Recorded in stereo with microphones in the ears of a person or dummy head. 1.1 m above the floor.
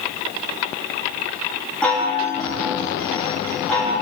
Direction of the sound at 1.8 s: 5° left (ahead or behind).